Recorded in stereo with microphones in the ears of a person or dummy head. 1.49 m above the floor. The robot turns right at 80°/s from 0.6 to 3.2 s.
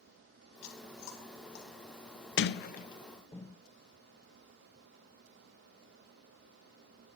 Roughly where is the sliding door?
Left.